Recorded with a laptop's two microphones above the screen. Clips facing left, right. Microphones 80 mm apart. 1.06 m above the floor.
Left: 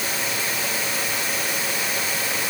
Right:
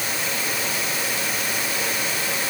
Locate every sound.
Only background noise.